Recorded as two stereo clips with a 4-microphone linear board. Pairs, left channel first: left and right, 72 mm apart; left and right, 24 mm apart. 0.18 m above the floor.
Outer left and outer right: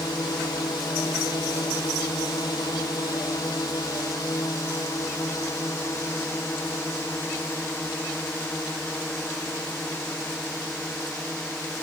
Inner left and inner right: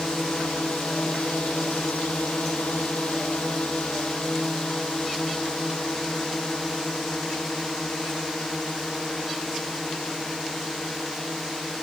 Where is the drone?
75° left (ahead or behind); by 11.8 s 15° left (ahead or behind).